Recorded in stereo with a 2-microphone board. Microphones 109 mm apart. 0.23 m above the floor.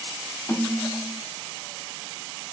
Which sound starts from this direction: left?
A snare drum, at 0.5 s.